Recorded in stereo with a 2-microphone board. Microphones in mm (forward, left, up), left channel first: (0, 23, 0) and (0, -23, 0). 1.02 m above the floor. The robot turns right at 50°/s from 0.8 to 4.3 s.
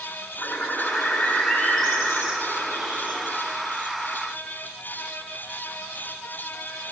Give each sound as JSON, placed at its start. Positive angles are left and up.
{"t": 0.4, "sound": "a bird", "azimuth_deg": 125, "distance_m": 7.5}